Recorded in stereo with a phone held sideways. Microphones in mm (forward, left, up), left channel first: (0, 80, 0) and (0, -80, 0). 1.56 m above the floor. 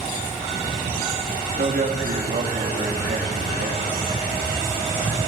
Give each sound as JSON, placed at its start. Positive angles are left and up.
{"t": 1.6, "sound": "a man speaking", "side_deg": -70, "distance_m": 3.0}